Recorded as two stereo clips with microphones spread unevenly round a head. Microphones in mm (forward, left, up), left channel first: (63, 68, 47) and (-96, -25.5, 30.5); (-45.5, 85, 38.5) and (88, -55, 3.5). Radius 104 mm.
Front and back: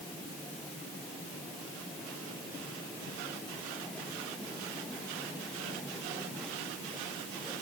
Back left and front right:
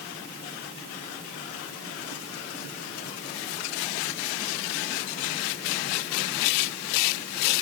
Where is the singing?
No singing in this recording.